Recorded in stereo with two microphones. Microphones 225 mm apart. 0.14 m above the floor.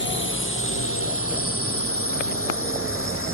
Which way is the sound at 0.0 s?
55° left (ahead or behind).